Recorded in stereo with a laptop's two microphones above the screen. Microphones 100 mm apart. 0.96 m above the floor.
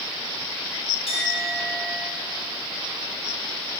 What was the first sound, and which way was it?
A clink, 75° left (ahead or behind).